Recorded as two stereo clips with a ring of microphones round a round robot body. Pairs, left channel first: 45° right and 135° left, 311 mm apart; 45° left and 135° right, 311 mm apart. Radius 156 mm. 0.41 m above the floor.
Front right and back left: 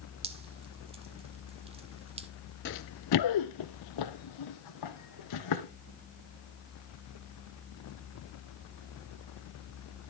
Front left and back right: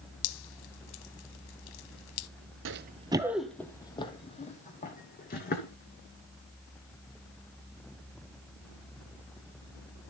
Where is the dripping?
65° left, 0.6 m.